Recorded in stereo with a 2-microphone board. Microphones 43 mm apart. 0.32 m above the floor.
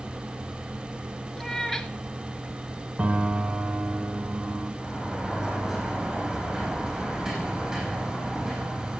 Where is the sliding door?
5° right (ahead or behind), 4.5 m.